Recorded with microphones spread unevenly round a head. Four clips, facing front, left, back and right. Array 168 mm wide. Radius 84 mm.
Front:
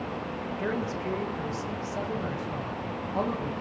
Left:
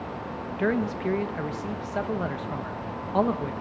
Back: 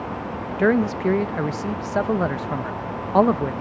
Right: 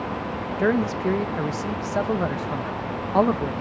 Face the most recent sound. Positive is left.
turn(degrees=-165)